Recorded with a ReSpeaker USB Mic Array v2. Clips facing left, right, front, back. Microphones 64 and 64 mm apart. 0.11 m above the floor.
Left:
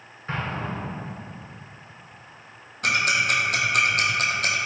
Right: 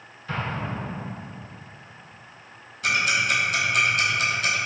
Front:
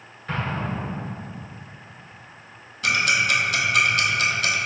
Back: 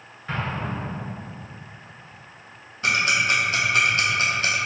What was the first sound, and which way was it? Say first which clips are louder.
An explosion: even, front 1 dB; 95° left.